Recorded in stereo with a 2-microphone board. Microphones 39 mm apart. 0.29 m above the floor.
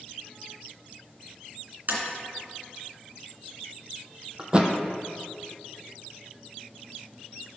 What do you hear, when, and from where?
1.9 s tapping: 55° right (ahead or behind), 2.5 m
4.4 s a thud: 30° right (ahead or behind), 0.8 m